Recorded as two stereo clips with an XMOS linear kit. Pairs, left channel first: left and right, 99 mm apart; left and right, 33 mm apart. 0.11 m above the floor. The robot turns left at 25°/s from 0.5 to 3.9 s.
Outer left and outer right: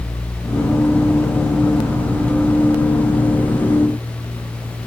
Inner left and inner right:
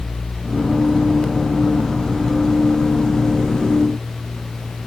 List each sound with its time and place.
Only background noise.